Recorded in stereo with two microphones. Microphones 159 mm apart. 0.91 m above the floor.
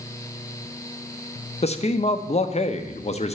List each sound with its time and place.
1.6 s a man speaking: 40° left (ahead or behind), 0.6 m